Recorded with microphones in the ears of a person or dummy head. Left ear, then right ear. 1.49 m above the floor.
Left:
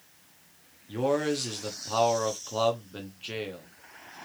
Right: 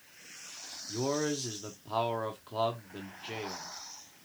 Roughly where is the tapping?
No tapping in this recording.